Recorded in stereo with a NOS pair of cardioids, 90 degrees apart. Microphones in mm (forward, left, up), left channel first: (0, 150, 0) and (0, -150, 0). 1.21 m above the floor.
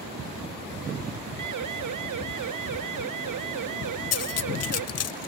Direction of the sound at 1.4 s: 65° right.